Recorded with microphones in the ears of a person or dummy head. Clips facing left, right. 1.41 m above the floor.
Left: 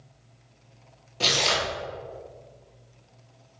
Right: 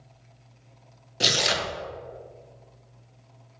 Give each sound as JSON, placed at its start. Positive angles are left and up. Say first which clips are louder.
{"t": 1.2, "sound": "tearing paper", "louder": "even", "side_deg": -15, "distance_m": 0.6}